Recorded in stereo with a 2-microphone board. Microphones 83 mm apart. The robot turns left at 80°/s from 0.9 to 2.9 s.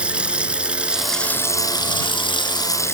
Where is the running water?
165° right; by 3.0 s 35° left.